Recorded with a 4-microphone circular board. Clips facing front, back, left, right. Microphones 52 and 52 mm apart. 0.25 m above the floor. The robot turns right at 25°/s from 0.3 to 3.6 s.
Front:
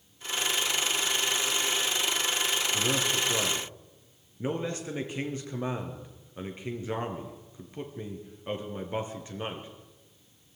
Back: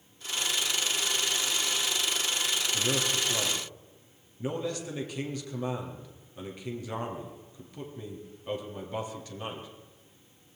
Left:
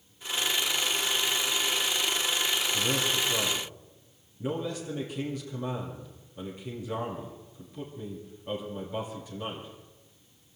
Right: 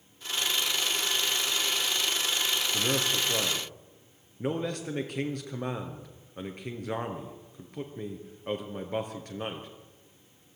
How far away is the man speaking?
About 4 m.